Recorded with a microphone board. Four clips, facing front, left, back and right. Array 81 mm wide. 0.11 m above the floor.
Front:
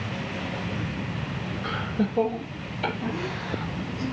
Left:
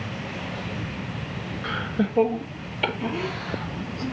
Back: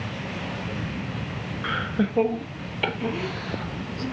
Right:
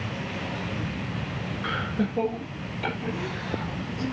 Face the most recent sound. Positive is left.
turn(degrees=125)